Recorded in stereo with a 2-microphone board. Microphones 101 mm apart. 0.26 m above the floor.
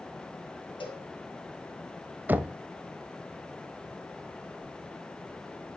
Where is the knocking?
20° right (ahead or behind), 0.6 m.